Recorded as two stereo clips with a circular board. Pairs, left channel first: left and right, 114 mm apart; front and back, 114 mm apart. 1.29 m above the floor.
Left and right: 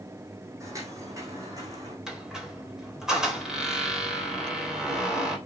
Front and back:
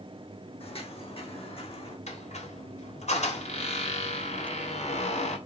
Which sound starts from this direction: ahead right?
Footsteps, at 0.6 s.